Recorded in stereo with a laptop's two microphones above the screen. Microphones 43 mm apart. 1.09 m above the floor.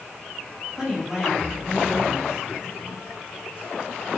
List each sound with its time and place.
0.7 s a woman speaking: 15° right (ahead or behind), 1.3 m